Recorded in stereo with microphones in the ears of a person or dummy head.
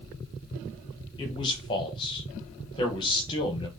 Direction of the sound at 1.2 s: 25° left (ahead or behind).